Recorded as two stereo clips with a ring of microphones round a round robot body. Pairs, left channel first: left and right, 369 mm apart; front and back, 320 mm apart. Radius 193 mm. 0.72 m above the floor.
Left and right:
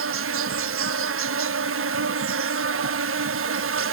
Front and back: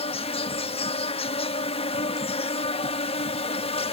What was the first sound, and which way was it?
An insect, 60° right.